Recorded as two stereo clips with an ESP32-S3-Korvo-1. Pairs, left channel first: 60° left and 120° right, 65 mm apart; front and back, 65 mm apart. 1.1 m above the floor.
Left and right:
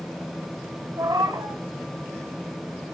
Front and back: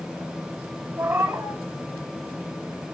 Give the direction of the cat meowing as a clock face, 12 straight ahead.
4 o'clock.